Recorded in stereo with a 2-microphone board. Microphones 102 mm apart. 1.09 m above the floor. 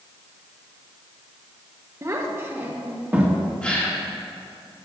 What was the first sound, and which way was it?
A child speaking, 30° right (ahead or behind).